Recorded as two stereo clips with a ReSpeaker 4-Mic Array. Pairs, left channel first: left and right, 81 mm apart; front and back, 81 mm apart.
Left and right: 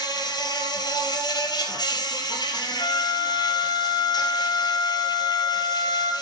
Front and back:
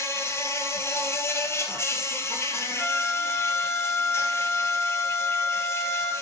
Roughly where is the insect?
Ahead left.